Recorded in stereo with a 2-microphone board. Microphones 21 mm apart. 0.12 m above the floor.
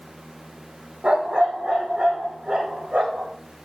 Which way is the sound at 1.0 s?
75° right (ahead or behind).